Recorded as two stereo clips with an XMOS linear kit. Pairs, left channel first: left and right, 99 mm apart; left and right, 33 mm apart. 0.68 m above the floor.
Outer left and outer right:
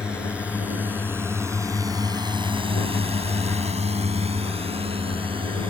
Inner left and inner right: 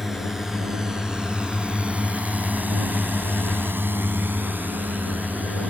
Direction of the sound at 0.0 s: 10° right (ahead or behind).